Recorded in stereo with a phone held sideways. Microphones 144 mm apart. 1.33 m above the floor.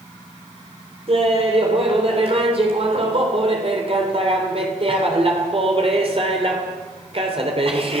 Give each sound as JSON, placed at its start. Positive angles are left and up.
{"t": 1.1, "sound": "laughter", "side_deg": -45, "distance_m": 4.0}